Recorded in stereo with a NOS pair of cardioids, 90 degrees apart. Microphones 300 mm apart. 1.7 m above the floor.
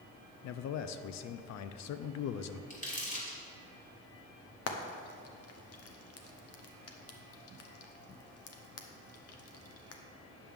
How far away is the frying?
About 1.0 m.